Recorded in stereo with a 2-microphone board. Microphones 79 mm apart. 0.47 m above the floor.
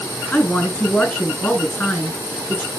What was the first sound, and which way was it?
A woman speaking, 25° left (ahead or behind).